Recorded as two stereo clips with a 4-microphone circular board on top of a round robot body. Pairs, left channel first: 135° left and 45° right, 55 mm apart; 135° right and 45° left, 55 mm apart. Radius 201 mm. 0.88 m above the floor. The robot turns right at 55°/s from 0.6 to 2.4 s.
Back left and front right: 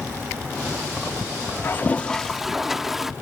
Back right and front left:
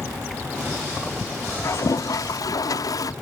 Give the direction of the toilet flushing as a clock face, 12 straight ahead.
6 o'clock.